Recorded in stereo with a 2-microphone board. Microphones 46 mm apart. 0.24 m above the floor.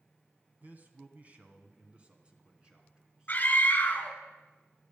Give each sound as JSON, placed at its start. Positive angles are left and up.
{"t": 0.6, "sound": "a man speaking", "side_deg": -40, "distance_m": 1.9}
{"t": 3.3, "sound": "a scream", "side_deg": 40, "distance_m": 2.5}